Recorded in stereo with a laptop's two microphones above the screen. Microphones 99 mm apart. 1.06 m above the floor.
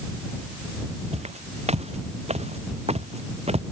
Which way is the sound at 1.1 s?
85° right.